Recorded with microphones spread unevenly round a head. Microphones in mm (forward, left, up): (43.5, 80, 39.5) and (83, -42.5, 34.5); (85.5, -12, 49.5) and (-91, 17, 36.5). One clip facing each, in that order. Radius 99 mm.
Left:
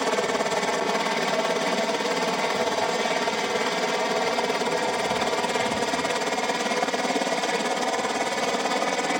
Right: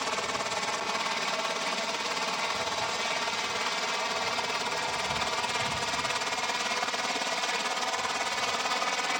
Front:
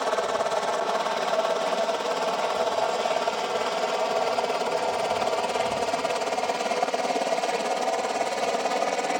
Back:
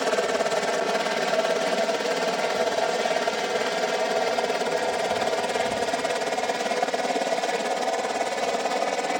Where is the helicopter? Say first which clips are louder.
Left 9 dB, back 2 dB; 110° left; by 9.2 s 85° left.